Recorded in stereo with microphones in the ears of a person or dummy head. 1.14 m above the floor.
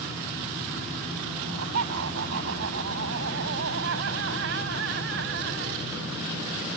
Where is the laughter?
75° right (ahead or behind); by 5.8 s 60° right (ahead or behind).